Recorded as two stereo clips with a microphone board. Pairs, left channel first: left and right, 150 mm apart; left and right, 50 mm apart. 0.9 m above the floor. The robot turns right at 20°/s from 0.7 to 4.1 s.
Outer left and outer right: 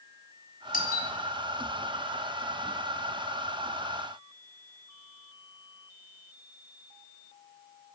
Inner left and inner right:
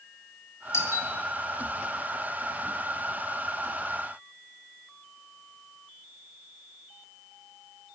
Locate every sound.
0.7 s a doorbell: 70° left (ahead or behind), 3 m; by 1.1 s 65° left (ahead or behind), 3 m